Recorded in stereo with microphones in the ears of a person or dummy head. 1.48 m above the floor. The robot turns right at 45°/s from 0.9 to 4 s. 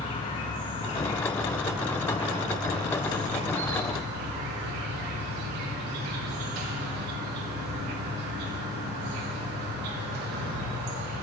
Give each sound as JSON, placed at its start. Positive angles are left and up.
{"t": 0.0, "sound": "an insect", "azimuth_deg": 150, "distance_m": 1.3}